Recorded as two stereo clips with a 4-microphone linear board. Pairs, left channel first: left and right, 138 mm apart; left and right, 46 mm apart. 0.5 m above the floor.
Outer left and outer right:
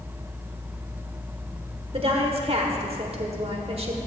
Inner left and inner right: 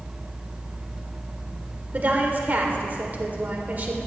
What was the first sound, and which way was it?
A woman speaking, 45° right (ahead or behind).